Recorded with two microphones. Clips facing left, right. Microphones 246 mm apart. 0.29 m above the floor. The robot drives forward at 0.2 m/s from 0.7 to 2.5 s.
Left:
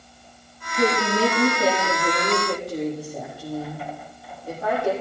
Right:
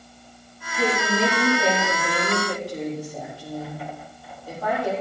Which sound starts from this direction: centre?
A woman speaking, at 0.8 s.